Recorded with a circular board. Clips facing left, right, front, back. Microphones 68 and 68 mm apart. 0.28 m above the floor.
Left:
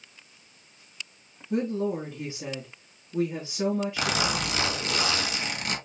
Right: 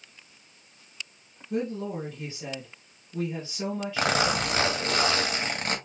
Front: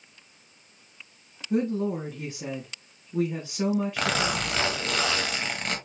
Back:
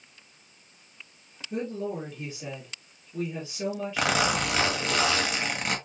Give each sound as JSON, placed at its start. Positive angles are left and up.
{"t": 1.5, "sound": "a woman speaking", "azimuth_deg": 20, "distance_m": 3.0}
{"t": 4.0, "sound": "a zipper", "azimuth_deg": -105, "distance_m": 1.5}